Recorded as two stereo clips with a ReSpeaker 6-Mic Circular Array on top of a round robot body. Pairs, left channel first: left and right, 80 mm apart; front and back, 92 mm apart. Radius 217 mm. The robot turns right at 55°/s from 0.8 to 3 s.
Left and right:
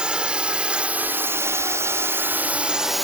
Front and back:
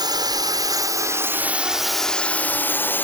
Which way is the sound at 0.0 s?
165° right.